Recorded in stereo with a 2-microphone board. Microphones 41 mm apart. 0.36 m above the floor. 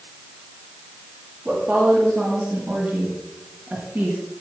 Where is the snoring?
No snoring in this recording.